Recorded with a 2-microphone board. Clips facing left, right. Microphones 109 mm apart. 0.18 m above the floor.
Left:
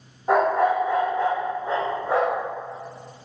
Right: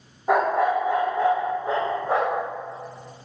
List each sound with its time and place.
0.3 s a dog barking: 5° right (ahead or behind), 1.4 m; by 2.5 s 25° right (ahead or behind), 2.5 m